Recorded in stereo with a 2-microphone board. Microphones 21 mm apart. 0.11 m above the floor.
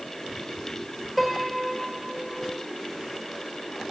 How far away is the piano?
About 5.5 m.